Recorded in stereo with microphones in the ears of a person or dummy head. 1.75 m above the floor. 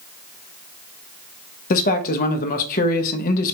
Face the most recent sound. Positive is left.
turn(degrees=50)  # may be behind; listen again after turning